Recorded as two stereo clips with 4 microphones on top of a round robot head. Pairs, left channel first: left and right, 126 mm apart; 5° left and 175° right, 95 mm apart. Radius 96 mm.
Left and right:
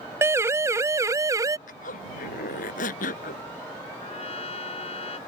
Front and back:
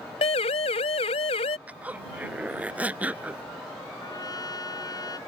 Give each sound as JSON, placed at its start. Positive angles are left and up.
{"t": 0.2, "sound": "a siren", "azimuth_deg": -20}
{"t": 1.7, "sound": "a zipper", "azimuth_deg": 115}
{"t": 4.0, "sound": "a trumpet", "azimuth_deg": 55}